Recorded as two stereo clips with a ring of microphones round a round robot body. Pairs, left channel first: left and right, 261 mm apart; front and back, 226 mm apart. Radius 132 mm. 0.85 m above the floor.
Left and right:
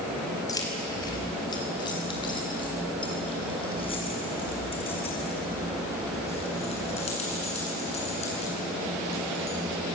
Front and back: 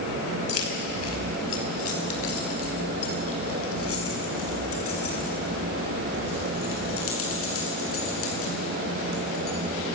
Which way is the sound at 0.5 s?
15° left.